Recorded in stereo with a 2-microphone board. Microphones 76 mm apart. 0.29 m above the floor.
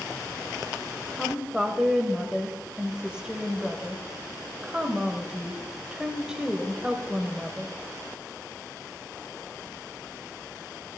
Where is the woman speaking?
10° right (ahead or behind), 1.1 m.